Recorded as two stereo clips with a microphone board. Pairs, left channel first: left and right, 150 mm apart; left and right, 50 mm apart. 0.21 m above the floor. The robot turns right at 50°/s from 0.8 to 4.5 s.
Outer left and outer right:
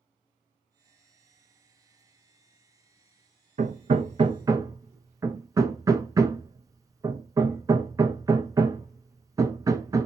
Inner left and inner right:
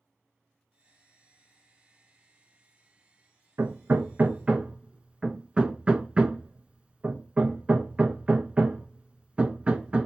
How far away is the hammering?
About 0.5 m.